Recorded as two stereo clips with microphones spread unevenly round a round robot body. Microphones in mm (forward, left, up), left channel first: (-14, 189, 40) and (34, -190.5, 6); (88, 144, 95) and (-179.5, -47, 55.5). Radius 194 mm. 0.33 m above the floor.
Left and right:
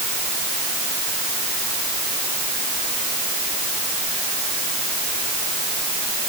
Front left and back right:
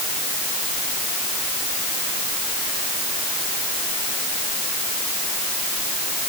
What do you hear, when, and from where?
Only background noise.